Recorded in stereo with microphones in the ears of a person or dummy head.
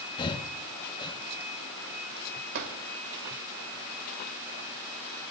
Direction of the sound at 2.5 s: 60° right (ahead or behind).